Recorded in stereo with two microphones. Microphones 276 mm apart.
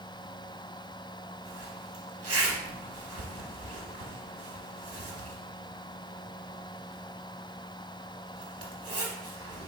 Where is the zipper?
55° right (ahead or behind), 1.0 m.